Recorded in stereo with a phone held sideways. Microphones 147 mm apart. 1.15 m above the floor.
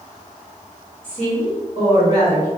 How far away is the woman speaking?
About 1.7 m.